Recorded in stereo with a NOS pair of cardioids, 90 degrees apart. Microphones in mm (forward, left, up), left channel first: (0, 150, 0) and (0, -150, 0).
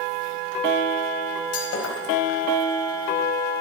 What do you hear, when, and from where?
1.5 s breaking glass: 55° left, 5 m